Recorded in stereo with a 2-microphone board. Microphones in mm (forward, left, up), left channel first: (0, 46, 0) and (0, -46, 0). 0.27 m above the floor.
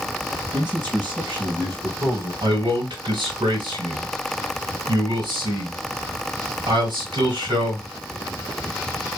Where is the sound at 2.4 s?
55° right (ahead or behind), 2.5 m.